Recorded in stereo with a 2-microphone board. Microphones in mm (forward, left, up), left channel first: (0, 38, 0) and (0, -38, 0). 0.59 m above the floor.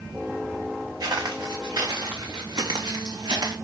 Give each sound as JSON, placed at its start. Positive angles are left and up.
{"t": 1.0, "sound": "footsteps", "side_deg": -60, "distance_m": 3.5}